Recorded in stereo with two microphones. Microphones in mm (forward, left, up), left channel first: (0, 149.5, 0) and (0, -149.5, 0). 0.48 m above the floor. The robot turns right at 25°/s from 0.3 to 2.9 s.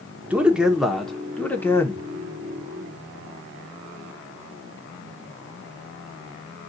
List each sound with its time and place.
0.3 s a man speaking: 5° right (ahead or behind), 0.7 m; by 2.0 s 10° left (ahead or behind), 0.7 m